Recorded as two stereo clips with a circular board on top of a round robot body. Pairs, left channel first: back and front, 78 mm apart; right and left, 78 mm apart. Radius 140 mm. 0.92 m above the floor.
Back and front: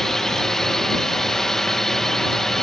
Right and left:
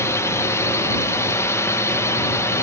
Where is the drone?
100° right.